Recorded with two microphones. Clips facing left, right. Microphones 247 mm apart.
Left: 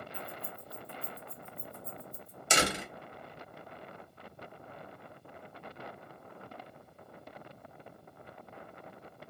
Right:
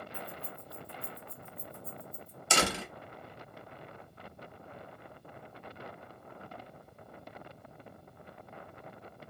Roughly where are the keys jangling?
Left.